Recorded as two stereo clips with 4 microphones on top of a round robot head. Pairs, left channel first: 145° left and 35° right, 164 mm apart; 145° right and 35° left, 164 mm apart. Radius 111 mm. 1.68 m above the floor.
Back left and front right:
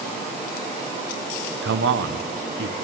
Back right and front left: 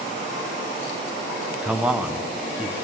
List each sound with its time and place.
1.6 s a man speaking: 50° right, 1.2 m